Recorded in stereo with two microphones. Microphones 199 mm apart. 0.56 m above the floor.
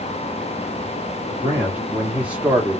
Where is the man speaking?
10° right (ahead or behind), 1.5 m; by 2.8 s 5° right (ahead or behind), 1.2 m.